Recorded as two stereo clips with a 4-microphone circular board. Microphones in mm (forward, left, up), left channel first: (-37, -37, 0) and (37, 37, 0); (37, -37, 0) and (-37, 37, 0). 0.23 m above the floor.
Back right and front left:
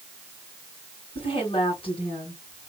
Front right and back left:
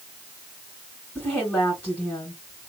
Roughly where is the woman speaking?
Behind right.